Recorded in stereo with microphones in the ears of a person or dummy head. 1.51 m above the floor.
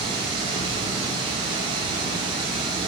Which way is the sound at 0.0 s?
30° right (ahead or behind).